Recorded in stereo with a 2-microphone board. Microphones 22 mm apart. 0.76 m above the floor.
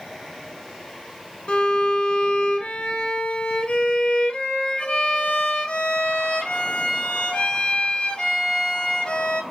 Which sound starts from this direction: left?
A violin, at 1.5 s.